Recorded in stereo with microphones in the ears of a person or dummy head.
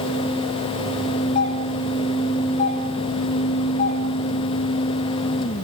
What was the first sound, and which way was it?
A doorbell, 35° left (ahead or behind).